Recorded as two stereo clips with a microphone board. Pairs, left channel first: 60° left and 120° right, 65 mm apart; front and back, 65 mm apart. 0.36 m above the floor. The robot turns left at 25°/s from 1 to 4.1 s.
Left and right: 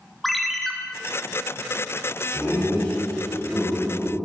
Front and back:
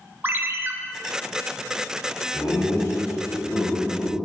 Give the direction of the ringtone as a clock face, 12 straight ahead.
7 o'clock.